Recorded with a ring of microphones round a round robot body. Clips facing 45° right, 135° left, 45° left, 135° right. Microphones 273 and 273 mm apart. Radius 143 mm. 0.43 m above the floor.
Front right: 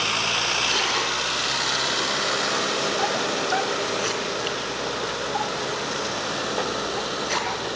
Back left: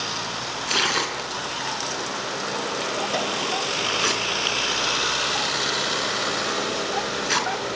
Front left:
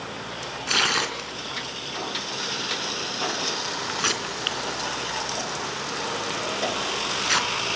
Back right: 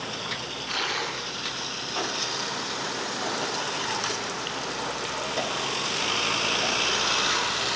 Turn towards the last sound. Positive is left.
turn(degrees=70)